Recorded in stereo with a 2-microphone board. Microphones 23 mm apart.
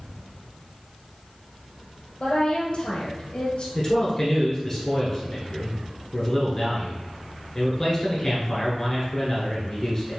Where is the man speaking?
20° left (ahead or behind), 1.5 m.